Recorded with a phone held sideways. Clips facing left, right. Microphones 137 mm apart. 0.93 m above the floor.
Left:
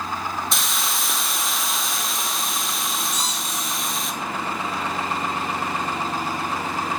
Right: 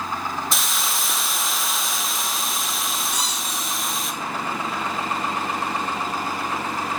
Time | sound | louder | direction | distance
0.5 | a hiss | even | centre (ahead or behind) | 0.9 m
3.1 | a squeak | even | 65° right (ahead or behind) | 3 m